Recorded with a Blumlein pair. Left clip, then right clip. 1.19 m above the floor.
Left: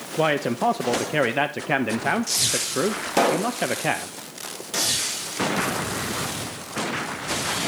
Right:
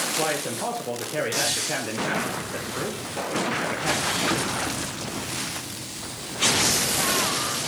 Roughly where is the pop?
Ahead left.